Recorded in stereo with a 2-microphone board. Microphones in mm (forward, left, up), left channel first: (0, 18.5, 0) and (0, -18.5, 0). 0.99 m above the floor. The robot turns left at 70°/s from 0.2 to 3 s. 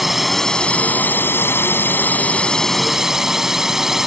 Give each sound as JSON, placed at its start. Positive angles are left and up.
{"t": 0.0, "sound": "a drone", "azimuth_deg": 180}